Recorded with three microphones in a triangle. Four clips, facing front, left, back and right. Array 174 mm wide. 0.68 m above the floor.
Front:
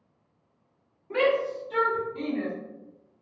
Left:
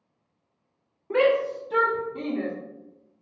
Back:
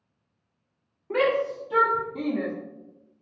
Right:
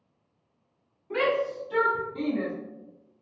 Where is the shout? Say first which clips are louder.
Left 5 dB, back 1 dB; 120° left, 1.2 m; by 2.5 s straight behind, 0.9 m.